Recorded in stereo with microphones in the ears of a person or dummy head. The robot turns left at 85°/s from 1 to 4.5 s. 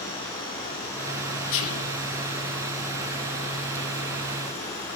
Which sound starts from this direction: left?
Whispering, at 1.5 s.